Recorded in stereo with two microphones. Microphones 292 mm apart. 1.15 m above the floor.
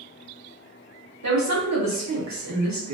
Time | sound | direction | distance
1.2 | a woman speaking | 70° right (ahead or behind) | 0.8 m